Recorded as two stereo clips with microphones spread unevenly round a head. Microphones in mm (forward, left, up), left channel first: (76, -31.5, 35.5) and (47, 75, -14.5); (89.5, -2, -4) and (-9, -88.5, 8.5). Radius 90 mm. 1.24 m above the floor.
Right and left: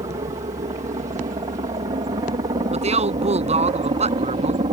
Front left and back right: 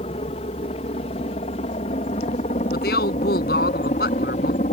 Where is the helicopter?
80° left.